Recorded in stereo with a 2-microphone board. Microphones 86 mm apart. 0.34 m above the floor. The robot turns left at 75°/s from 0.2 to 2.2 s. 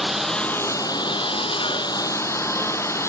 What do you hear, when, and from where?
0.0 s a lawn mower: 175° right; by 3.1 s 35° left